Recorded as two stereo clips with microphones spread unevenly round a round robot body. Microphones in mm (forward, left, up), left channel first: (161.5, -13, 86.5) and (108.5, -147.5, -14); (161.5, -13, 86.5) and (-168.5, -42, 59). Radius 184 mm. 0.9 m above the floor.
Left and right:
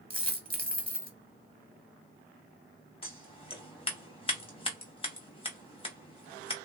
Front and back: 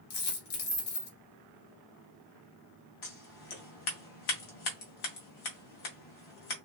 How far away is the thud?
No thud in this recording.